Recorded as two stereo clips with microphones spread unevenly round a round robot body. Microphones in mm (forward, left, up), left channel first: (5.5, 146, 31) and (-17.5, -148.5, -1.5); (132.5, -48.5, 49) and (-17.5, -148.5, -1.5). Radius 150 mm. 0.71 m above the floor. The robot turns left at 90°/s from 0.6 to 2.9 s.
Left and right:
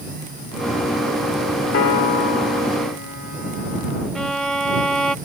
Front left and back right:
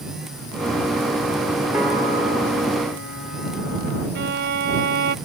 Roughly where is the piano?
Behind left.